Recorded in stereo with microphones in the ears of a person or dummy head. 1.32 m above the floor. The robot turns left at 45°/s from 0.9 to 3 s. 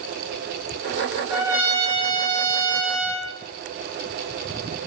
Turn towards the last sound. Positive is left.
turn(degrees=-85)